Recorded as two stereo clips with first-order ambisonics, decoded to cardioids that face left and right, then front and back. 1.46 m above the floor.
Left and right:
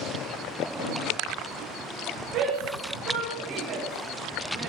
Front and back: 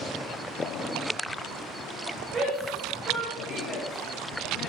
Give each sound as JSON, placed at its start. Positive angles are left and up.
{"t": 2.3, "sound": "a shout", "azimuth_deg": -115, "distance_m": 4.0}